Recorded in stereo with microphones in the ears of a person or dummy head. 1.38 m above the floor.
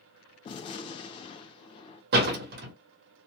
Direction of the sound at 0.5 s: 35° left (ahead or behind).